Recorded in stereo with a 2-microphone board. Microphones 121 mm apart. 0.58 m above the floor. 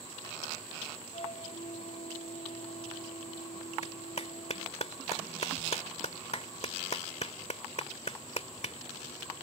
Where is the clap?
55° left (ahead or behind).